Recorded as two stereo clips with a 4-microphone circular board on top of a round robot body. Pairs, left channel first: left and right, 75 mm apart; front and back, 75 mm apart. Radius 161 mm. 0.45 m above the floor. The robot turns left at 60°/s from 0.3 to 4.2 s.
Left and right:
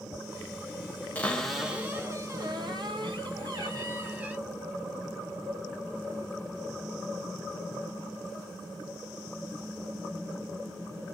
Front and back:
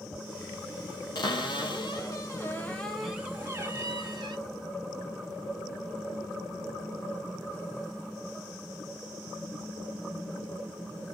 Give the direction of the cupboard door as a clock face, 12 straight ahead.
11 o'clock.